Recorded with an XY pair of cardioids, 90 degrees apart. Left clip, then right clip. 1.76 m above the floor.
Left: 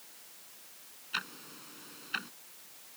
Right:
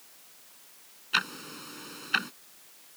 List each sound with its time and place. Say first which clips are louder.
1.1 s ticking: right 9 dB; 70° right